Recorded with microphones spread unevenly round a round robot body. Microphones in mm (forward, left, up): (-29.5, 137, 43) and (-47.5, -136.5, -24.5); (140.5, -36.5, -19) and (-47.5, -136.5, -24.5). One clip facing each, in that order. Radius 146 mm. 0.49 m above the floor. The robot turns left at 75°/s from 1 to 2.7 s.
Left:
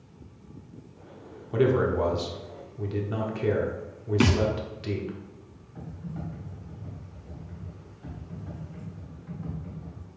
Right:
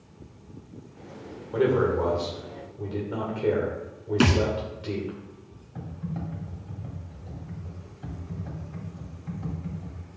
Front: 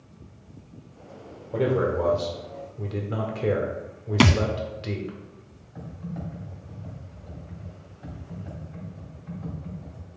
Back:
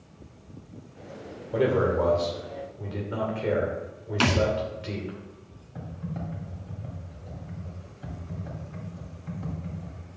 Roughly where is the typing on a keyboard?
Right.